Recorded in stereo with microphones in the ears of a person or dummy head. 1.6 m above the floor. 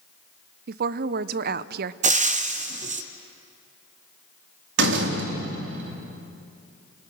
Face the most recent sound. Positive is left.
turn(degrees=-75)  # may be behind; listen again after turning